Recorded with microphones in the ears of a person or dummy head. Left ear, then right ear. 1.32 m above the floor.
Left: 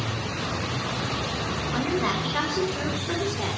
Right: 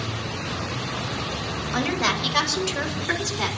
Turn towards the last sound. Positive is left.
turn(degrees=-60)  # may be behind; listen again after turning